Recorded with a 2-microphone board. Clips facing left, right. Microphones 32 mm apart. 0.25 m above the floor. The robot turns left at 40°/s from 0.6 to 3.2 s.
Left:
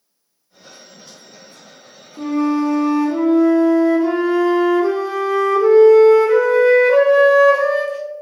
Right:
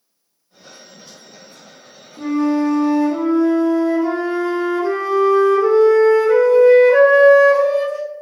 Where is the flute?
150° left, 1.4 m; by 8.0 s 105° left, 1.4 m.